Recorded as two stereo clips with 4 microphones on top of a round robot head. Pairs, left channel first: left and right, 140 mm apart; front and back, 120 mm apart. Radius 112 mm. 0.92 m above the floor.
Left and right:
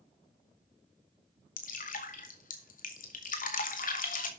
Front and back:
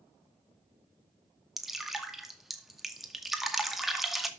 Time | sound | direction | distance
1.6 | dripping | 90° left | 2 m